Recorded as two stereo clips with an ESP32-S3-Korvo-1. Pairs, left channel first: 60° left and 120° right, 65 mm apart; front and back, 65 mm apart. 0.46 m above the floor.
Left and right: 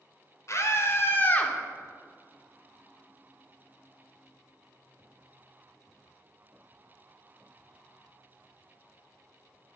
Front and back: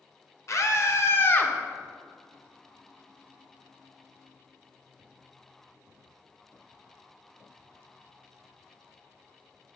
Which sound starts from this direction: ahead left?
A scream, at 0.5 s.